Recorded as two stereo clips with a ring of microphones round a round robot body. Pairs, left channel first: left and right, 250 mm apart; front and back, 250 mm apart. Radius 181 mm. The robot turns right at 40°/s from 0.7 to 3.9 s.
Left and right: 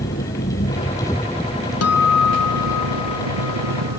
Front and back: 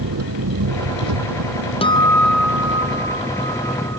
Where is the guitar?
70° left; by 4.0 s 150° left.